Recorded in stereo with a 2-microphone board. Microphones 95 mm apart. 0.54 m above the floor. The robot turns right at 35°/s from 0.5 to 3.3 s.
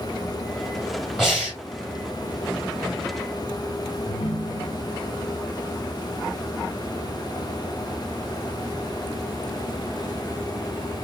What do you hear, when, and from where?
1.2 s breathing: 5° right (ahead or behind), 2.5 m; by 1.6 s 20° right (ahead or behind), 2.5 m
4.1 s a ringtone: 85° left, 1.2 m